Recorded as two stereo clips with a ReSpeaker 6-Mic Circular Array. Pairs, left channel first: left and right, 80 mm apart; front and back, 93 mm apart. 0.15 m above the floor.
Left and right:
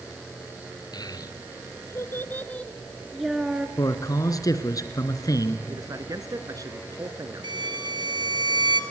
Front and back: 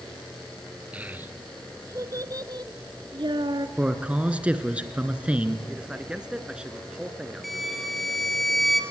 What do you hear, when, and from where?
0.9 s a child speaking: 105° left, 1.8 m; by 3.7 s 165° right, 1.6 m
3.8 s a man speaking: 105° left, 2 m
5.7 s a man speaking: 105° right, 2 m
7.4 s a violin: 90° right, 2.5 m